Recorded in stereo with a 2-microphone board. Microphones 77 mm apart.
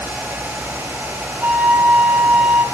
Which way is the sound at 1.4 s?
20° right (ahead or behind).